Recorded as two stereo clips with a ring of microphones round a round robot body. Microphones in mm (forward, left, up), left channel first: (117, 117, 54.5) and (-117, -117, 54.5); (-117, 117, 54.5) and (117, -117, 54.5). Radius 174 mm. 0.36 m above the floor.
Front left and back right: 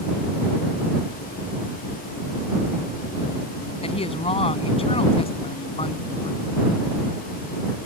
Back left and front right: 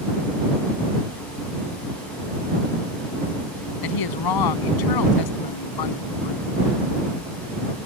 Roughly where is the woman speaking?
Behind left.